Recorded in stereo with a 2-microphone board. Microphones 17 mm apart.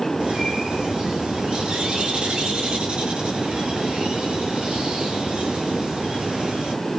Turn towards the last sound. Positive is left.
turn(degrees=-80)